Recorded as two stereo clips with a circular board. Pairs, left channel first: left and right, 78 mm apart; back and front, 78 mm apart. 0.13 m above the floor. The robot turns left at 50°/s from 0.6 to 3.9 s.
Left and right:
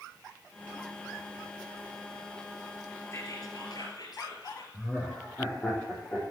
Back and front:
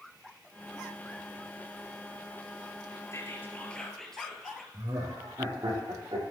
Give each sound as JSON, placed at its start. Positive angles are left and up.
{"t": 3.1, "sound": "whispering", "azimuth_deg": 135, "distance_m": 3.0}
{"t": 4.7, "sound": "laughter", "azimuth_deg": 20, "distance_m": 5.5}